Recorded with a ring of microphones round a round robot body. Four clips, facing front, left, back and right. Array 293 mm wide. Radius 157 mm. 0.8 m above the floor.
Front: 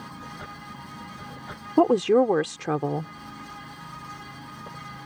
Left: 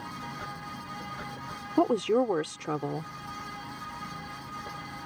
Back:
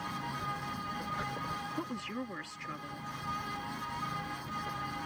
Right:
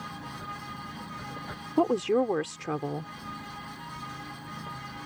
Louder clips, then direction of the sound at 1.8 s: Even, front 20 dB; 5° left.